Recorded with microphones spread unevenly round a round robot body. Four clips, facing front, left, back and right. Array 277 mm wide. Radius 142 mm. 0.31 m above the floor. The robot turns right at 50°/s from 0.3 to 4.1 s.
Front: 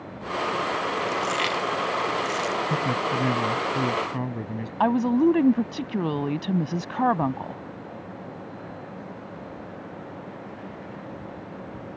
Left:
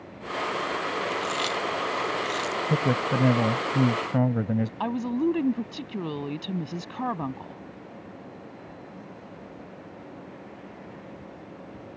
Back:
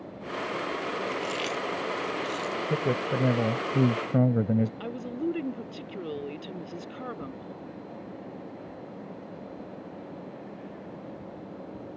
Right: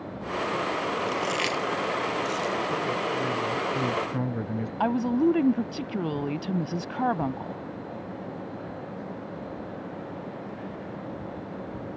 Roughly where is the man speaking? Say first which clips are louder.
Left 3 dB, front 2 dB; left.